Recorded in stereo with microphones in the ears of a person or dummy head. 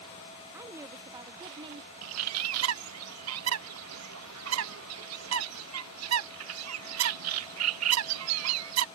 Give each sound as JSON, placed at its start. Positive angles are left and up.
{"t": 0.5, "sound": "a woman speaking", "side_deg": -15}
{"t": 2.0, "sound": "a bird", "side_deg": -80}